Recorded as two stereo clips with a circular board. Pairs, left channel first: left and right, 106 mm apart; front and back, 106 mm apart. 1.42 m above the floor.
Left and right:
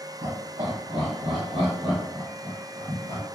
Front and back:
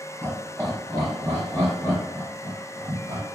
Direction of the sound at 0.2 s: 95° right.